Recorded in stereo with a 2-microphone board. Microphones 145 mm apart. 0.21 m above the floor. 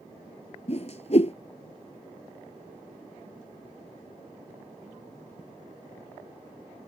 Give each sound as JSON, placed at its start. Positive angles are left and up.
{"t": 0.7, "sound": "a whoosh", "side_deg": 50}